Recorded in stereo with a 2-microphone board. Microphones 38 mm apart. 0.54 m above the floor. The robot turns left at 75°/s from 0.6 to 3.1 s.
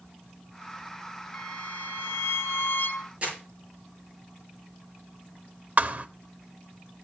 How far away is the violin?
About 1.2 m.